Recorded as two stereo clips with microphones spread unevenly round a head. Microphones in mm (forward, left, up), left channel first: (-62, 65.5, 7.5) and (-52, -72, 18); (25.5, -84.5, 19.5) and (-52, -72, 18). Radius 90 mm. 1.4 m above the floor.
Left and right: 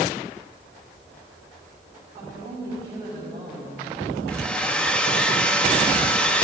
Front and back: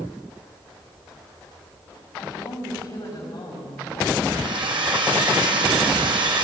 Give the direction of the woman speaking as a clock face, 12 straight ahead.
12 o'clock.